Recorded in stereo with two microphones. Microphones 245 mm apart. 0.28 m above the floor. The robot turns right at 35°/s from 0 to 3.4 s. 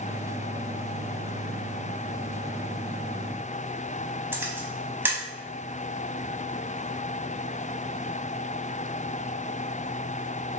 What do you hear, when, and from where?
4.3 s a camera shutter: 10° right (ahead or behind), 0.7 m